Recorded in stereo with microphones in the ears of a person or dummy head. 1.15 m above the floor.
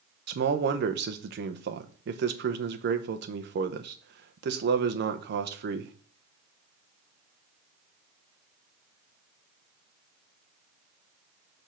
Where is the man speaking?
55° right (ahead or behind), 0.7 m.